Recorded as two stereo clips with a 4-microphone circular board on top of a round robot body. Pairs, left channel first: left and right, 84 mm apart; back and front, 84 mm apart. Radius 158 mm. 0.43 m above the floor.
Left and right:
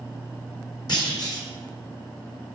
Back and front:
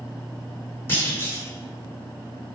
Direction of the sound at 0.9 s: 120° left.